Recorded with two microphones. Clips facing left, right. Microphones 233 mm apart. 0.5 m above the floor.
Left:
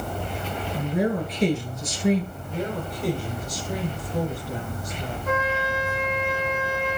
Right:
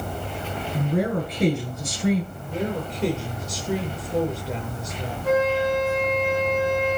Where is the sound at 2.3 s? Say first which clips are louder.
Right 2 dB; 85° right, 8.5 m.